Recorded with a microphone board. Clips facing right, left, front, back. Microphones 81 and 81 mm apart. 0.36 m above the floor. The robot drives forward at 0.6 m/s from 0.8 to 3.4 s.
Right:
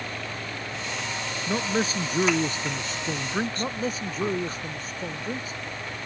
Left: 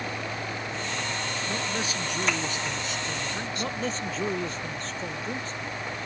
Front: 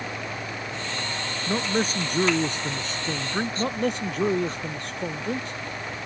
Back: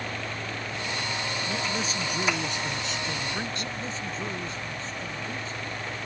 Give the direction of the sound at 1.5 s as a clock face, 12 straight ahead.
1 o'clock.